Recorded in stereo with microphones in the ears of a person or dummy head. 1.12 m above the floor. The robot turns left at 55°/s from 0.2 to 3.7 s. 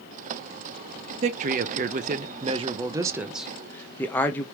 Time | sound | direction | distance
1.2 | a man speaking | 60° right | 0.5 m